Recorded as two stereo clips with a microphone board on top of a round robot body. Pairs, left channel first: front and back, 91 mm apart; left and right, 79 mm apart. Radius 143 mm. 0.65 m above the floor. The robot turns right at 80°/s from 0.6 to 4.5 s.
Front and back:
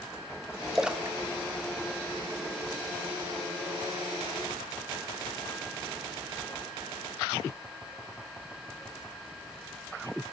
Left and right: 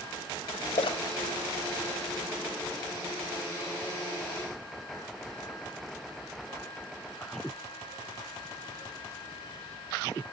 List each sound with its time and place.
0.8 s a splash: 90° left, 0.9 m; by 2.7 s 115° right, 0.9 m